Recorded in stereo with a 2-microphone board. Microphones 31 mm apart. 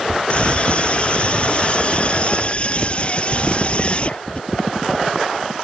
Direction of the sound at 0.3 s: 35° left (ahead or behind).